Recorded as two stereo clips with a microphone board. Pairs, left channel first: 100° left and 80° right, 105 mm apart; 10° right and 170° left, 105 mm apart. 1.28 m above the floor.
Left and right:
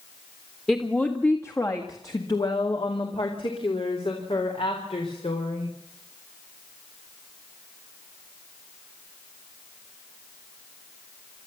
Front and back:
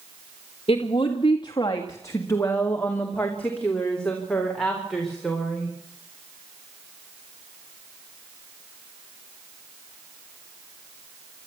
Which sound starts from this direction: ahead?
A woman speaking, at 0.7 s.